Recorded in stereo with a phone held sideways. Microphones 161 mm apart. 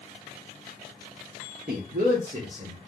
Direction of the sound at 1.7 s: 65° right (ahead or behind).